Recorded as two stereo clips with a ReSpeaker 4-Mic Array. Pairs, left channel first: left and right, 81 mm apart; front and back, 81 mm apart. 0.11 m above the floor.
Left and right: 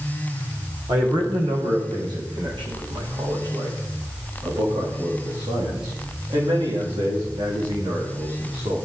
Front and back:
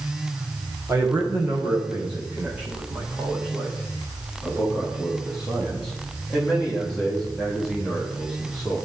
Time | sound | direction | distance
0.9 | a man speaking | 110° right | 7.5 m